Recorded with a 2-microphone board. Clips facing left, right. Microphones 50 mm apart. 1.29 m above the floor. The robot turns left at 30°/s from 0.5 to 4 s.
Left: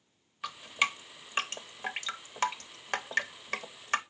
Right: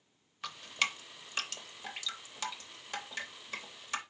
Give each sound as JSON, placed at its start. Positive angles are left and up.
{"t": 0.4, "sound": "dripping", "side_deg": 5, "distance_m": 0.6}